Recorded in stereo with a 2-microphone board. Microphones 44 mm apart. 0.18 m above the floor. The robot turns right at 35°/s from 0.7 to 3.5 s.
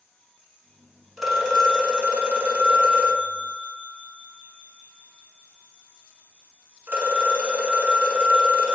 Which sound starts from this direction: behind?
A phone ringing, at 1.2 s.